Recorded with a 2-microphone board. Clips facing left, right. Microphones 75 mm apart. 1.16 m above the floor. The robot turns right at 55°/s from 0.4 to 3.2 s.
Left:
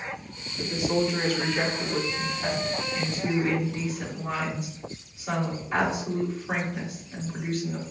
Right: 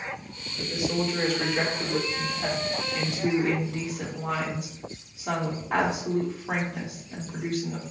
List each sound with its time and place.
0.6 s a woman speaking: 135° left, 2.5 m; by 7.9 s 80° right, 2.5 m